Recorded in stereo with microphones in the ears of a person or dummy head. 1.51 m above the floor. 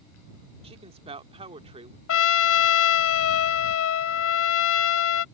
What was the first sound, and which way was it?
A woman speaking, 25° right (ahead or behind).